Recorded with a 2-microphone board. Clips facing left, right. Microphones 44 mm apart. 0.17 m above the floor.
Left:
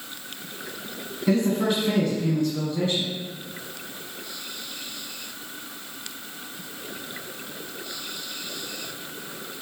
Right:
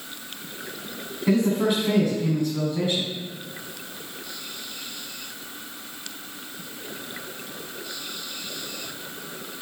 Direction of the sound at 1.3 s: 15° right (ahead or behind).